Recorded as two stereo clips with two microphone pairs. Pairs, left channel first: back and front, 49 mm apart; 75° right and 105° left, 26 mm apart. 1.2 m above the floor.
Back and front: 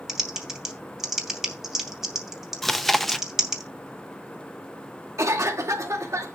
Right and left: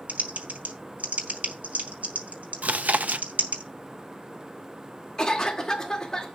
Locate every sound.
0.1 s typing on a keyboard: 85° left, 2.5 m
2.6 s chewing: 95° left, 0.8 m
5.2 s a cough: 10° right, 2 m